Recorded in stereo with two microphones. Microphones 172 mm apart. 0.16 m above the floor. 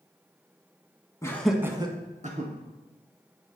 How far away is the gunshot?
I don't hear a gunshot.